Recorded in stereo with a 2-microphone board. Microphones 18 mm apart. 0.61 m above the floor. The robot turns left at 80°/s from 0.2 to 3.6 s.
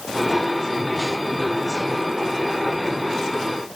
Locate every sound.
Only background noise.